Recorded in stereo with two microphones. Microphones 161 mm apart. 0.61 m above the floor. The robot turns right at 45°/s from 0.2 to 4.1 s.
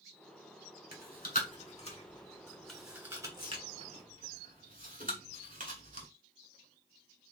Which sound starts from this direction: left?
Chewing, at 0.9 s.